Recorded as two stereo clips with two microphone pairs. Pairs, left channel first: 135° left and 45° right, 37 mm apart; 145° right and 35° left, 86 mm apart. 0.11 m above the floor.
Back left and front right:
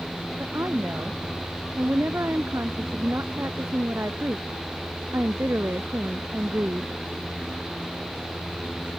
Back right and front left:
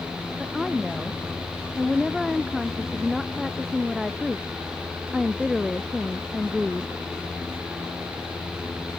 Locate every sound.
0.4 s a woman speaking: 50° right; by 6.9 s 55° right